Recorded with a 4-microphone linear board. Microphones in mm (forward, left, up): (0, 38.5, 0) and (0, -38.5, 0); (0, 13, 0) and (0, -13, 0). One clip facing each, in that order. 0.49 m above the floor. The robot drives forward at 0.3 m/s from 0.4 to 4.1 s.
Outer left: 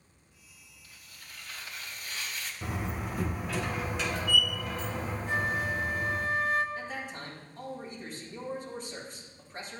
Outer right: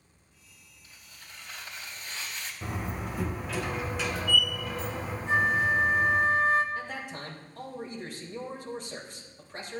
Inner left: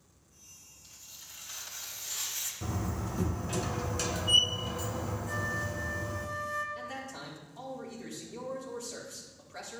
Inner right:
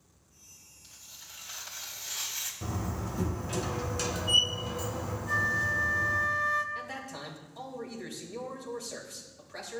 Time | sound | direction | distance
0.8 | tearing paper | 25° right (ahead or behind) | 3 m
2.6 | a door slam | 5° right (ahead or behind) | 1.6 m
5.3 | a flute | 30° right (ahead or behind) | 0.9 m
6.8 | a man speaking | 75° right (ahead or behind) | 3.5 m